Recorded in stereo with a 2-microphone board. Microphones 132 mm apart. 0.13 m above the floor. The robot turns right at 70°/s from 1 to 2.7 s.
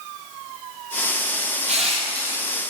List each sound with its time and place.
1.7 s crushing: 65° right, 0.8 m; by 2.6 s straight ahead, 0.8 m